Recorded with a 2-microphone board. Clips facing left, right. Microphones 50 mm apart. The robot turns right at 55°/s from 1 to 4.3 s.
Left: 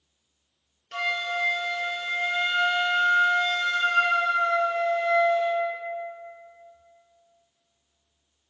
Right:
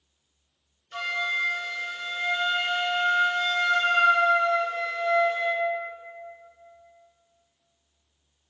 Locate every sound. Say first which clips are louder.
0.9 s a flute: even; 95° left, 0.5 m; by 5.7 s 80° right, 0.5 m